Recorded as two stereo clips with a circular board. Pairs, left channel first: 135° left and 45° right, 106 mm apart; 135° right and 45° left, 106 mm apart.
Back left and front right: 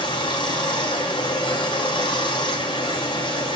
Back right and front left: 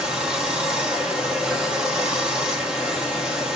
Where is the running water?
125° left, 0.8 m.